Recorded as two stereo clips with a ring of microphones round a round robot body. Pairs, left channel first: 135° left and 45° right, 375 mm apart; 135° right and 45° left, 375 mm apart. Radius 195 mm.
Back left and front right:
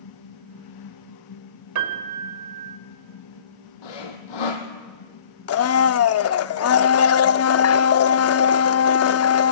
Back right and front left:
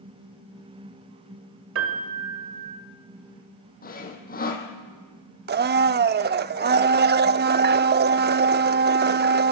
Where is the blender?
100° left, 0.6 m.